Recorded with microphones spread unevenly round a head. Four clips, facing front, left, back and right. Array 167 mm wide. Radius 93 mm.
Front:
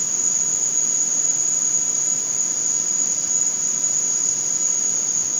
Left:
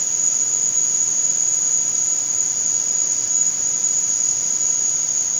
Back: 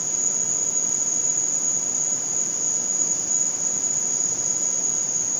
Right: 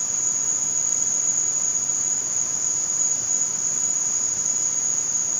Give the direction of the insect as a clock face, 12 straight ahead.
2 o'clock.